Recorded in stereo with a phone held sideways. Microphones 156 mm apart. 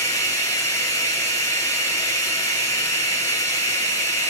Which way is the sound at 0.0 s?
20° left (ahead or behind).